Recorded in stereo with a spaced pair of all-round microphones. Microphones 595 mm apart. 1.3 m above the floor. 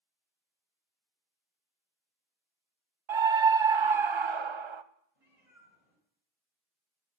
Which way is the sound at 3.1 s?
50° right (ahead or behind).